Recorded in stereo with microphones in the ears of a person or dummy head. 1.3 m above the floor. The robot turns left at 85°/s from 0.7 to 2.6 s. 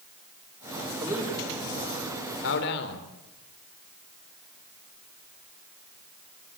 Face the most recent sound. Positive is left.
turn(degrees=65)  # may be behind; listen again after turning